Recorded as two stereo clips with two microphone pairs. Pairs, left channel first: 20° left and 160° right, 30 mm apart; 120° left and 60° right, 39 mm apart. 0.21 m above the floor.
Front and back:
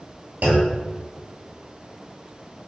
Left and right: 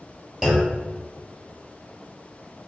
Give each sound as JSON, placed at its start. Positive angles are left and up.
{"t": 0.4, "sound": "a clunk", "azimuth_deg": -145, "distance_m": 0.9}